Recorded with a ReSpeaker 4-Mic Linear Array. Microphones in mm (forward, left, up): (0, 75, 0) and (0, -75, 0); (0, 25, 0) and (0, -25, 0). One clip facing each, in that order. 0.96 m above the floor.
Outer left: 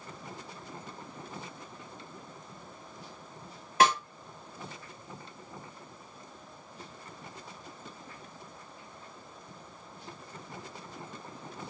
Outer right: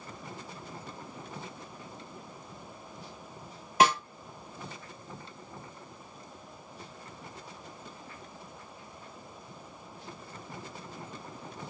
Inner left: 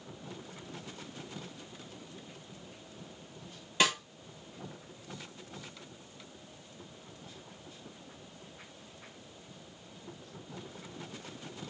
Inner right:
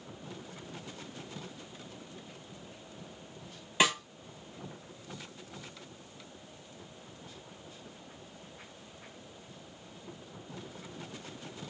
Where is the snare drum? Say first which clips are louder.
Outer right 1 dB, inner right 1 dB; 15° right (ahead or behind), 1.7 m.